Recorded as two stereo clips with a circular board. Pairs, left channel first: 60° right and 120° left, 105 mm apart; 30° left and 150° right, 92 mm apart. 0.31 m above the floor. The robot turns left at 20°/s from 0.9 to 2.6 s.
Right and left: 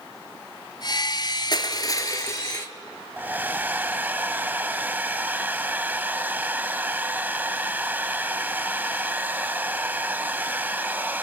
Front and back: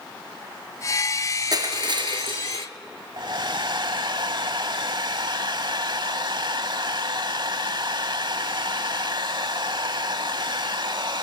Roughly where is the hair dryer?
Behind.